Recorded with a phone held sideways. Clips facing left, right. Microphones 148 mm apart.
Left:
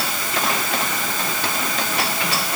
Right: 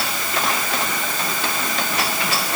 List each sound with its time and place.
Only background noise.